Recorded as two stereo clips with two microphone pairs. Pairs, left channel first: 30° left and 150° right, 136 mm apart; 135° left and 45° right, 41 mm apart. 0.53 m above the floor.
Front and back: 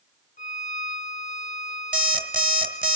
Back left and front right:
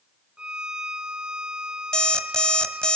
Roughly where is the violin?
Ahead.